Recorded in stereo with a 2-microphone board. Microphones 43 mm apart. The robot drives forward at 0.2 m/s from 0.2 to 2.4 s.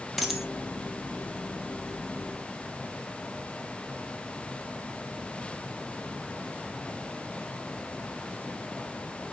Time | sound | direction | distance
0.2 | a dropped coin | centre (ahead or behind) | 1.7 m